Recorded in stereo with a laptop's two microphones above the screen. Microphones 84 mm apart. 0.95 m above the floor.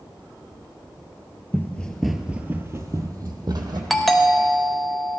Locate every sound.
1.5 s running footsteps: 25° left (ahead or behind), 1.0 m; by 3.8 s 50° right (ahead or behind), 1.9 m
3.9 s a doorbell: centre (ahead or behind), 0.7 m